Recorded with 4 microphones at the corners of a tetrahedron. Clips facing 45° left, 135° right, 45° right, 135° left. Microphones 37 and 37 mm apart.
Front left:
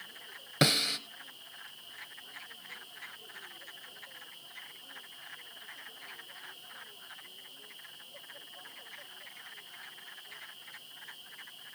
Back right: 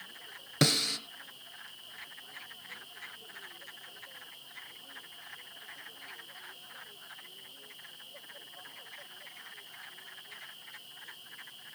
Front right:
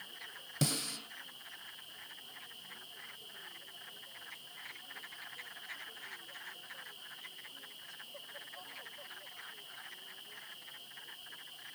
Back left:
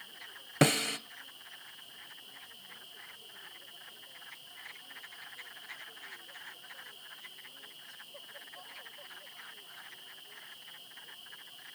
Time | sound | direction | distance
0.6 | a snare drum | 120° left | 1.4 m